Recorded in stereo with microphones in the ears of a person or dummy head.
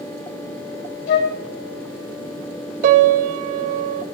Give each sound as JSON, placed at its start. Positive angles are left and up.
{"t": 1.1, "sound": "a flute", "side_deg": 60, "distance_m": 1.7}
{"t": 2.8, "sound": "a piano", "side_deg": -50, "distance_m": 1.0}